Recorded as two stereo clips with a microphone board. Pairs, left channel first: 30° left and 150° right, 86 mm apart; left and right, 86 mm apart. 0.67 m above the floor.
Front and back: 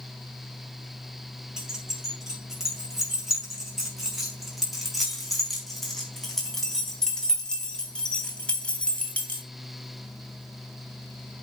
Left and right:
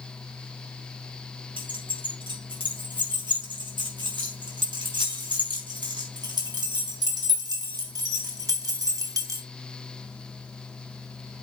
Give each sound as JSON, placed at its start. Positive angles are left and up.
{"t": 1.6, "sound": "keys jangling", "azimuth_deg": -70, "distance_m": 7.0}